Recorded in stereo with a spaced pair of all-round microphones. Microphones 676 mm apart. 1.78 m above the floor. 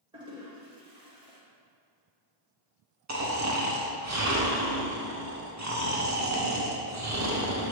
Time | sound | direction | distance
0.1 | a toilet flushing | 5° right (ahead or behind) | 1.7 m
3.1 | snoring | 25° right (ahead or behind) | 0.7 m